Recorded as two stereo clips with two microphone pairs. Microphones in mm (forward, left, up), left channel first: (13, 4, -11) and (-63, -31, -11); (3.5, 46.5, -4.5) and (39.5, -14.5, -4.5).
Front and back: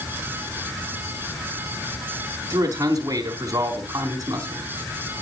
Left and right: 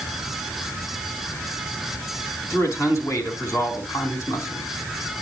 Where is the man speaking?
160° left, 4 m.